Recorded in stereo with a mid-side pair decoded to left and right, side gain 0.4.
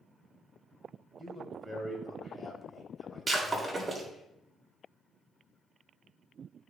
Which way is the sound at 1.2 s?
10° left.